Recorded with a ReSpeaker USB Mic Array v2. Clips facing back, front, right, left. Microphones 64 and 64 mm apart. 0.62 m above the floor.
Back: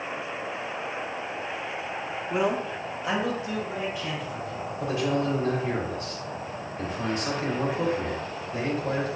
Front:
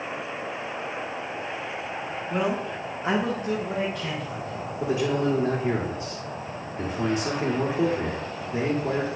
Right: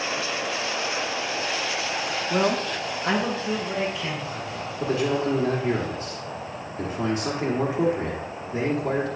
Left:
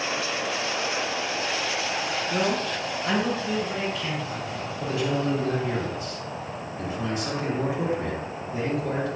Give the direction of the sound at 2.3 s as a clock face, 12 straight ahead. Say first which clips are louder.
Back 1 dB, right 4 dB; 4 o'clock.